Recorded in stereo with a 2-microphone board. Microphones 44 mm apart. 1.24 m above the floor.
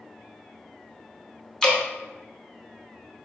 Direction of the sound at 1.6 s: 15° left (ahead or behind).